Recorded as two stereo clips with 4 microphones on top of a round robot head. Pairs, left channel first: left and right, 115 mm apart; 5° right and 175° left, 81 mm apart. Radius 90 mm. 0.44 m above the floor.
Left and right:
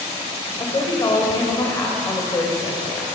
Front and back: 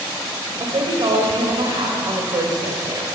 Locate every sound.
0.6 s a woman speaking: 145° left, 2 m